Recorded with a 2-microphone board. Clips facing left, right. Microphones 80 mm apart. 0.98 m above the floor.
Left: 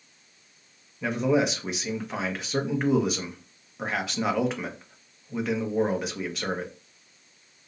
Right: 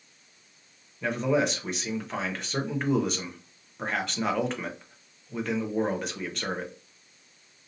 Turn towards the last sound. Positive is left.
turn(degrees=5)  # may be behind; listen again after turning